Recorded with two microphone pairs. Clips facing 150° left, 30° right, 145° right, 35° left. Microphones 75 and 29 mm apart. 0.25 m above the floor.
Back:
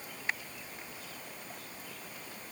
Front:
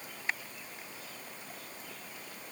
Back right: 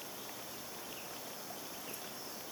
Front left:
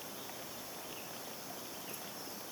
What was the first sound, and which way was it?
Only background noise.